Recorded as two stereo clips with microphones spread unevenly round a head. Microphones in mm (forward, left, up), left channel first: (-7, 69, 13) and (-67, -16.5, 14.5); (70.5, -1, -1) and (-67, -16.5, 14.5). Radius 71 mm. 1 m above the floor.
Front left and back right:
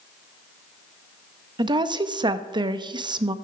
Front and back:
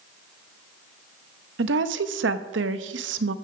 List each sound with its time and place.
1.6 s a woman speaking: 175° right, 0.9 m